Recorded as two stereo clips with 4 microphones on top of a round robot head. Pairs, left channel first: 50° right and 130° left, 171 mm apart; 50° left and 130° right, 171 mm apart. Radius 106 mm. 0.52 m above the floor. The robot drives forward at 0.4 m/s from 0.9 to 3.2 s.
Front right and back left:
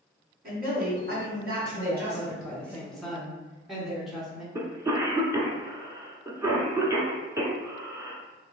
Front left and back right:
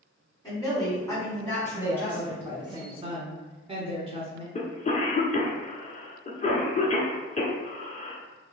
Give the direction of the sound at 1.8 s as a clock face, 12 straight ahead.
2 o'clock.